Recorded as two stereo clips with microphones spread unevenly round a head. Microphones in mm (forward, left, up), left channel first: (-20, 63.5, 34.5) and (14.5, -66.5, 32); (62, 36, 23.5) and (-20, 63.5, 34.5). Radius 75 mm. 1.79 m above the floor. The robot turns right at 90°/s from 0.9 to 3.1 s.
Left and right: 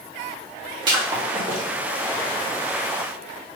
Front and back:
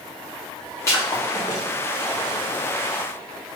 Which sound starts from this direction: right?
Breaking glass, at 0.9 s.